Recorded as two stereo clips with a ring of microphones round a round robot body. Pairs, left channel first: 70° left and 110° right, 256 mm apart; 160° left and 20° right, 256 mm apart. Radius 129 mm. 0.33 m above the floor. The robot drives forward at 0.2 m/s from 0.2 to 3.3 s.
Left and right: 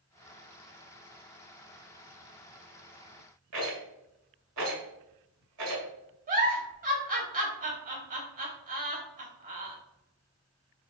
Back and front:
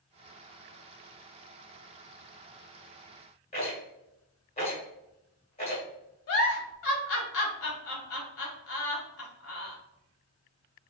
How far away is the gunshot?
I don't hear a gunshot.